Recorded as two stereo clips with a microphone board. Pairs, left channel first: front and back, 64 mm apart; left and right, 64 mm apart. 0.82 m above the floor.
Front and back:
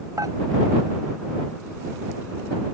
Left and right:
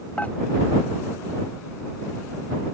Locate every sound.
0.2 s dishes clattering: 155° left